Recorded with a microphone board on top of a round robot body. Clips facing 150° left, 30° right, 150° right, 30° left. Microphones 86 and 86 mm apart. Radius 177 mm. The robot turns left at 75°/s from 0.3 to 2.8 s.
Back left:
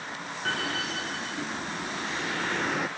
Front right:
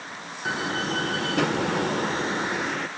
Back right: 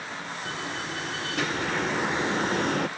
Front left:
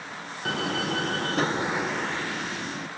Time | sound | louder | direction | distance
0.5 | a door slam | front right 4 dB, front left 8 dB | 50° left | ?